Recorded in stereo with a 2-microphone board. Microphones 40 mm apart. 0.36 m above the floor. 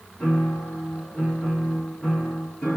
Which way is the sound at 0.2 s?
30° left (ahead or behind).